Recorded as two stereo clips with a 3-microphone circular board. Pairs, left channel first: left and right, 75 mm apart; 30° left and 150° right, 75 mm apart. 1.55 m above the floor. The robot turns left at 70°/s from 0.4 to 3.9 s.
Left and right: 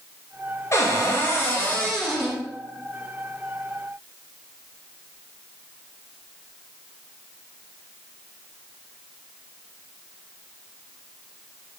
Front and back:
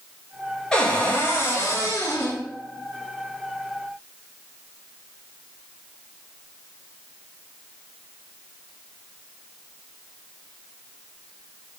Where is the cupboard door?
100° left, 0.9 m; by 2.4 s 20° right, 0.9 m.